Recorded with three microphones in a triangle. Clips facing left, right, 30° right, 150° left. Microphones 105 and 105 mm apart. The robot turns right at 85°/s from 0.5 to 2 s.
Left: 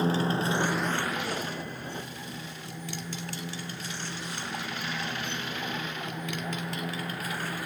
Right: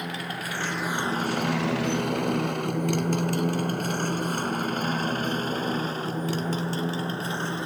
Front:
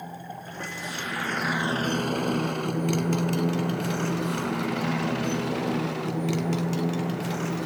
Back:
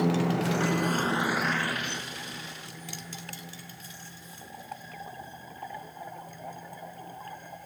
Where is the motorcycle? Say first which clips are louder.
Left 7 dB, back 12 dB; 150° left; by 7.7 s 25° right.